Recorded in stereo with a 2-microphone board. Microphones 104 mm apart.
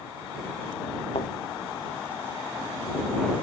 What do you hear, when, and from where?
1.1 s a thud: 65° left (ahead or behind)